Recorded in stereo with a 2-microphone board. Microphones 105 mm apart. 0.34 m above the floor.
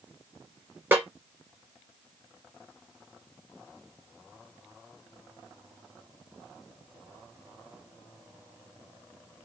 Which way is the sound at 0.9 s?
20° right (ahead or behind).